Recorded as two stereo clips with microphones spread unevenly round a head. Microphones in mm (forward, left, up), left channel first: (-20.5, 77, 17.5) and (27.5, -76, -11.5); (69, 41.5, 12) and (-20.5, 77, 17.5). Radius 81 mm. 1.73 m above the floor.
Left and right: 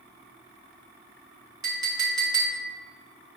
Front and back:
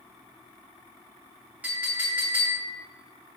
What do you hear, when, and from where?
1.6 s a clink: 140° right, 0.8 m